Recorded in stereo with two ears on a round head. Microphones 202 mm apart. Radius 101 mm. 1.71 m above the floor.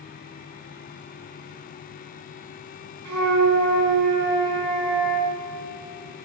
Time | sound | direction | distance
3.0 | a flute | 80° right | 7 m